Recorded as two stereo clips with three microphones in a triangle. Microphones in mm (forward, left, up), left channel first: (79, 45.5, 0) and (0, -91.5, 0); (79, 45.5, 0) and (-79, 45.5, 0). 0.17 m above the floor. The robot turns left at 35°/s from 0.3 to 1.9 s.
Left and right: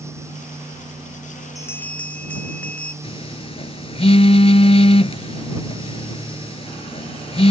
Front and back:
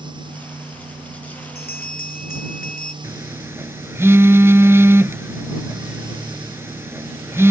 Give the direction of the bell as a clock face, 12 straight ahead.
12 o'clock.